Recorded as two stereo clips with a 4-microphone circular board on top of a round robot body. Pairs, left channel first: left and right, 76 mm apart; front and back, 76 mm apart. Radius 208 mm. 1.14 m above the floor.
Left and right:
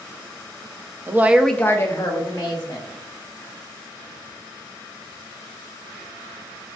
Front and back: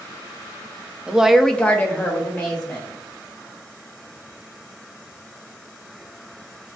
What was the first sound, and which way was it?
A woman speaking, 115° right.